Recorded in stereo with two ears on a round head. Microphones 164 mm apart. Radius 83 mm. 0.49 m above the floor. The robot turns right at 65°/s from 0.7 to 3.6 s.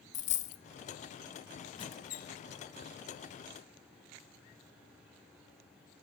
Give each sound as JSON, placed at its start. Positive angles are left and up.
{"t": 0.1, "sound": "a dropped coin", "side_deg": 40, "distance_m": 0.5}
{"t": 1.8, "sound": "a squeak", "azimuth_deg": 25, "distance_m": 0.7}